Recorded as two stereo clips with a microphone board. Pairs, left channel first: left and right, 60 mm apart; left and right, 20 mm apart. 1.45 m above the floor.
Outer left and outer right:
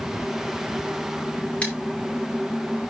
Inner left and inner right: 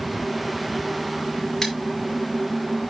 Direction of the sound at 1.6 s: 25° left (ahead or behind).